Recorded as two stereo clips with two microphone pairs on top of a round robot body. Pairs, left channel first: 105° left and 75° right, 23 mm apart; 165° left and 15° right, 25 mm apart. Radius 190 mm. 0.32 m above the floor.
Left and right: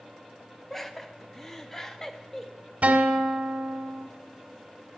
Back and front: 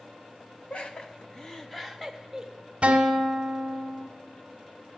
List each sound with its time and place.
0.7 s laughter: 175° right, 1.4 m; by 2.5 s 40° left, 1.3 m
2.8 s a guitar: 55° right, 1.4 m